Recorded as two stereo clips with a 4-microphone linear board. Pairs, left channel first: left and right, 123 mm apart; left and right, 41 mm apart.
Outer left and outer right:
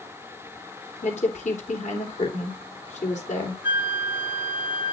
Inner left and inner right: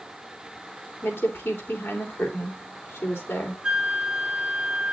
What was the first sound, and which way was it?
A woman speaking, 80° left.